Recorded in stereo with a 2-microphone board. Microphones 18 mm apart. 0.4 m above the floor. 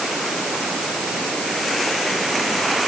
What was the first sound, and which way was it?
Only background noise.